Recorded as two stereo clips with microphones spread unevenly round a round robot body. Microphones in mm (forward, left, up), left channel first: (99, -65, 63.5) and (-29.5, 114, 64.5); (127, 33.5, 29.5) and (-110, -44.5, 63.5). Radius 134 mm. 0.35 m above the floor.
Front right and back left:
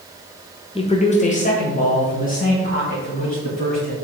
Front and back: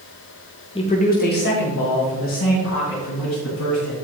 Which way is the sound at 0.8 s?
15° right.